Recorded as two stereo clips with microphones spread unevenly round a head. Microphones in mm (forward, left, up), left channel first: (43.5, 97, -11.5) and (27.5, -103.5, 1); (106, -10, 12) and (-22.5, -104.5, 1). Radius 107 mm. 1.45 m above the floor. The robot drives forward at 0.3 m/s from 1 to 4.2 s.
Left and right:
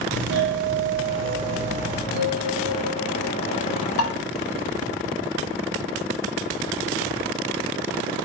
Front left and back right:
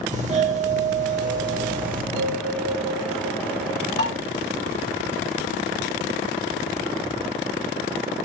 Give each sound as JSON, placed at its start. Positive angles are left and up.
{"t": 0.1, "sound": "a doorbell", "azimuth_deg": -115, "distance_m": 1.0}
{"t": 2.1, "sound": "a bell", "azimuth_deg": -155, "distance_m": 3.0}
{"t": 4.0, "sound": "dishes clattering", "azimuth_deg": 70, "distance_m": 1.5}